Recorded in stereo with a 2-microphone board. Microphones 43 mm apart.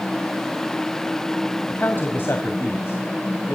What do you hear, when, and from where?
1.7 s a man speaking: 50° left (ahead or behind), 1.8 m; by 3.6 s 70° left (ahead or behind), 3 m